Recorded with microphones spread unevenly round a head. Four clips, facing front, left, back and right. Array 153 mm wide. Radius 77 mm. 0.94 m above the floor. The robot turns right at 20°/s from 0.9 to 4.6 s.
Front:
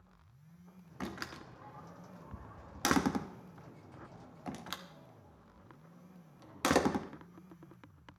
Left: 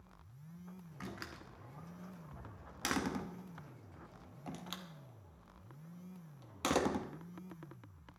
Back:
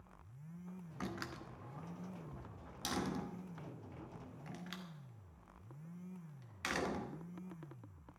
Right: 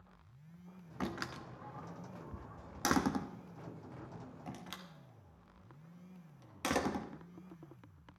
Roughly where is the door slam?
Ahead right.